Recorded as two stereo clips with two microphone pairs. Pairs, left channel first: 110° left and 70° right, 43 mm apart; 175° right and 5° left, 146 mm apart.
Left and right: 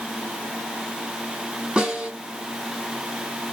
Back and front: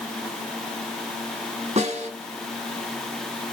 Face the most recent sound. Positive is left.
turn(degrees=-10)